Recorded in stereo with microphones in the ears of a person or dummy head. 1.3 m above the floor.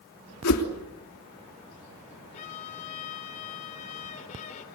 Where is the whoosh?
75° left (ahead or behind), 3 m.